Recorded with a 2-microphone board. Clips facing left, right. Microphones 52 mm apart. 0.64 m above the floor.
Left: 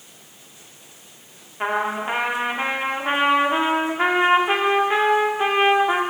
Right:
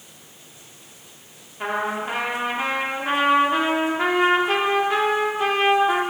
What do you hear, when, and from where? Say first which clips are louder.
1.6 s a trumpet: left 2 dB; 25° left (ahead or behind), 1.2 m